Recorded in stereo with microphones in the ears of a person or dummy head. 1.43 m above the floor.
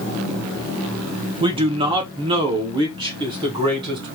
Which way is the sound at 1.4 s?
25° right (ahead or behind).